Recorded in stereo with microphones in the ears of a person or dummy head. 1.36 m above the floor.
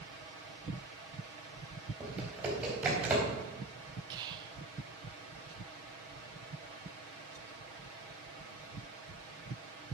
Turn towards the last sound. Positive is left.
turn(degrees=-30)  # may be behind; listen again after turning